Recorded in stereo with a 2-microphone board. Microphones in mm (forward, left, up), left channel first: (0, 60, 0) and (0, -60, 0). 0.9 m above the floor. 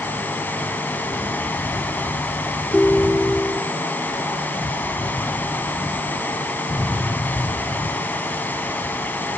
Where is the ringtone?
Centre (ahead or behind), 0.5 m.